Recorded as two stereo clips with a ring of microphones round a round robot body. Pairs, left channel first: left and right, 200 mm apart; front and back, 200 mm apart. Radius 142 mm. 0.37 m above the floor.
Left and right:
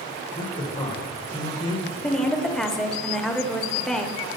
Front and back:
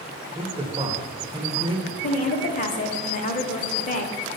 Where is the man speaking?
140° left, 1.0 m.